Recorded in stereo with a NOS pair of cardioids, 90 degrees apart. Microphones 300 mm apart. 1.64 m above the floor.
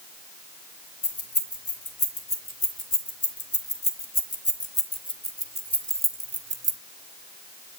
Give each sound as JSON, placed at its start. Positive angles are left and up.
{"t": 1.0, "sound": "keys jangling", "azimuth_deg": 50, "distance_m": 3.5}